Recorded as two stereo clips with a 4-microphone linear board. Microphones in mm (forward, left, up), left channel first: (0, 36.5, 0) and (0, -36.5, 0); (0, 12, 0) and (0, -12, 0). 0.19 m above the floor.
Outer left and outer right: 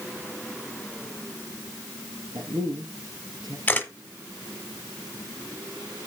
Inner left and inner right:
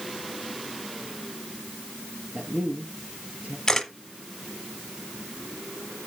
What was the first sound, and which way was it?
A man speaking, 75° right (ahead or behind).